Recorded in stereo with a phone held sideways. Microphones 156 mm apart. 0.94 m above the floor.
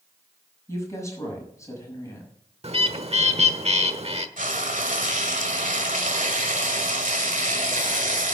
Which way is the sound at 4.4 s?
55° right (ahead or behind).